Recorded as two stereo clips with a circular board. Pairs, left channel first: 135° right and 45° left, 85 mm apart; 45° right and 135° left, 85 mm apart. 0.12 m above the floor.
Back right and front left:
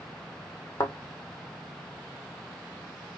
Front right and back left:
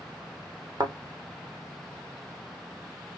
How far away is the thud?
About 1.0 m.